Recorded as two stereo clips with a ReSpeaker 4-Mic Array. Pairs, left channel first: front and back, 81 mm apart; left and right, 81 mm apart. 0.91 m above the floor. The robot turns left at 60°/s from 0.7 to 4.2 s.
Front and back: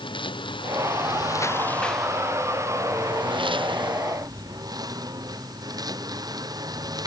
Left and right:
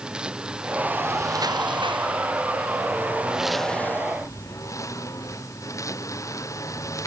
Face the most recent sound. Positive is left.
turn(degrees=140)